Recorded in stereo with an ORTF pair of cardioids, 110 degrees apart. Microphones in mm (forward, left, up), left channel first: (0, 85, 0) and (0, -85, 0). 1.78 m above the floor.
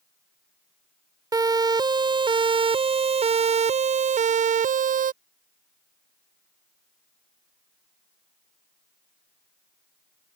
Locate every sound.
1.3 s a siren: 20° right; by 5.1 s 55° right